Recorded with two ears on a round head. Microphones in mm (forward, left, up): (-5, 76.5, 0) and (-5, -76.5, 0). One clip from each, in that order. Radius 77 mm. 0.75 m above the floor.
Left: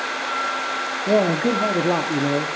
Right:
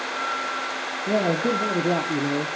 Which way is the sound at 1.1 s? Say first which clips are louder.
Left 4 dB; 20° left (ahead or behind).